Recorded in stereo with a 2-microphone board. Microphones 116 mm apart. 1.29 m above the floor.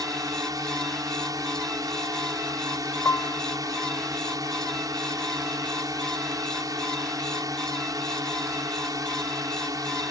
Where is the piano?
25° left (ahead or behind).